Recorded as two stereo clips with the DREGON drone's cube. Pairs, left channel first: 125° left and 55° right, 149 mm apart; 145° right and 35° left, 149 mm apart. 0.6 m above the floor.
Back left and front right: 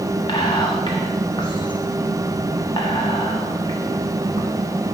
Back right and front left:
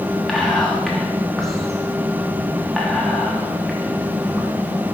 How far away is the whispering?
About 1.2 m.